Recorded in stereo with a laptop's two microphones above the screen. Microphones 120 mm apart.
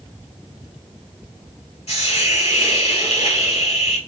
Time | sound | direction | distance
1.9 | a hiss | 60° left (ahead or behind) | 1.9 m